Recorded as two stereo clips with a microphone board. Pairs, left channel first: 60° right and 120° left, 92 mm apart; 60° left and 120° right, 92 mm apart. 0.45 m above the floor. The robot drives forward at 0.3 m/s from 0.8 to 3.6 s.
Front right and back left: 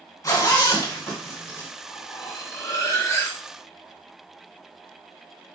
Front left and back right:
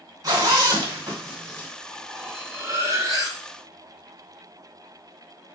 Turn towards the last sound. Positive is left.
turn(degrees=-110)